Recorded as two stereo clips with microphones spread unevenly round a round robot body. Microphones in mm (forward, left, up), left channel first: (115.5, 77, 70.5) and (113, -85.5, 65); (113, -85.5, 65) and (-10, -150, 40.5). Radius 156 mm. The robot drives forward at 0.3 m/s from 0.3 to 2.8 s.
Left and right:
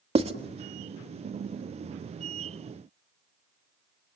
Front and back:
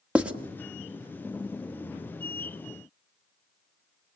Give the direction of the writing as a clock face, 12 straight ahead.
3 o'clock.